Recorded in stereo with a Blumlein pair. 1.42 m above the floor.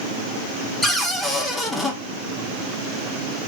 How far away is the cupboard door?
About 0.7 m.